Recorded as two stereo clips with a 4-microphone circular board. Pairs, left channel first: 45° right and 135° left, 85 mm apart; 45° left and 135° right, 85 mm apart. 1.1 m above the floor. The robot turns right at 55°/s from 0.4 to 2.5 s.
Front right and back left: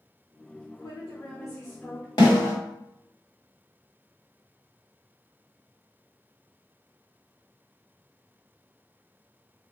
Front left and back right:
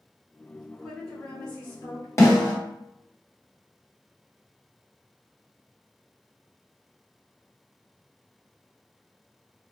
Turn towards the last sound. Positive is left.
turn(degrees=5)